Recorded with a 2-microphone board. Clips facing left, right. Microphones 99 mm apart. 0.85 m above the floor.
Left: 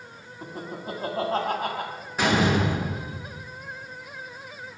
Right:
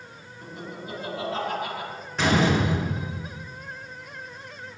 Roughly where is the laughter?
Left.